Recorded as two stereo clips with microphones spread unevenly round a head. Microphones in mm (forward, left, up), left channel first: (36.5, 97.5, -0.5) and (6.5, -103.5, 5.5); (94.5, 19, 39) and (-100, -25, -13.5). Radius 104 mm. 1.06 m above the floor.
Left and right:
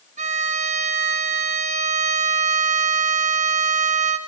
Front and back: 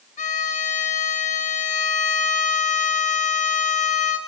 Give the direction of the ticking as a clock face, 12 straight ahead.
I don't hear ticking.